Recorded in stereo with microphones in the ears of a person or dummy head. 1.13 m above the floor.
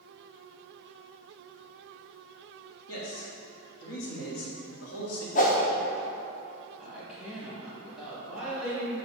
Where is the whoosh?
40° left (ahead or behind), 0.8 m.